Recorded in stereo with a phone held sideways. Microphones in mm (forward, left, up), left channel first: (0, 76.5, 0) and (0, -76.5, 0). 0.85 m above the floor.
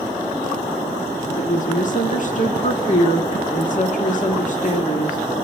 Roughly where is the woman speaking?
Left.